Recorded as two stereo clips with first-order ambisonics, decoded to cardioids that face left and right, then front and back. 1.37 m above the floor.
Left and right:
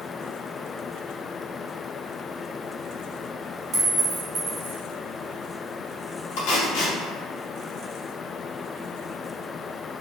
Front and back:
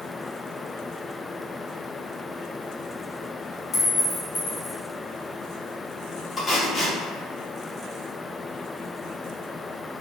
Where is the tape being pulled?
85° left, 0.9 m.